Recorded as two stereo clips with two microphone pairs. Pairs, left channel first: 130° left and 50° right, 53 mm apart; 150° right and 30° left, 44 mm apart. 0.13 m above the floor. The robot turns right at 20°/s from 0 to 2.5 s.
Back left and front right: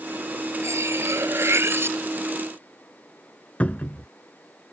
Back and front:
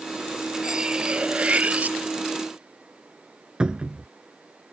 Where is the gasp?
No gasp in this recording.